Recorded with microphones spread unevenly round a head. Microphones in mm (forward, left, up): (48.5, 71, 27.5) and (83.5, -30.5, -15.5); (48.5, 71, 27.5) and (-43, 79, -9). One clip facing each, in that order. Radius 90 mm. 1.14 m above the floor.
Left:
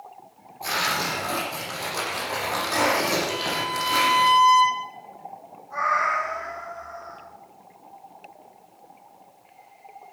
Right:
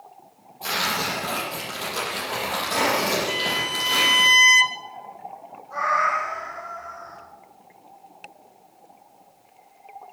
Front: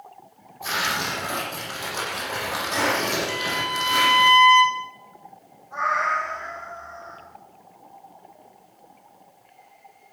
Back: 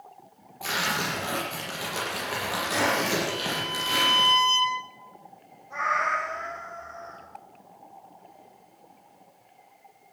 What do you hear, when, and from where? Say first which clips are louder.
0.6 s tearing paper: even, front 2 dB; 155° right, 7 m
3.3 s a violin: left 1 dB, front 4 dB; 115° right, 0.7 m
5.7 s a cat meowing: right 1 dB, front 3 dB; 160° right, 4 m